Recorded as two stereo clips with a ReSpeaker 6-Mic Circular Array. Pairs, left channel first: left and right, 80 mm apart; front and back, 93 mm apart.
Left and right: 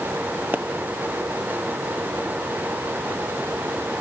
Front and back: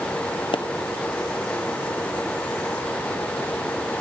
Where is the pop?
25° right, 0.9 m.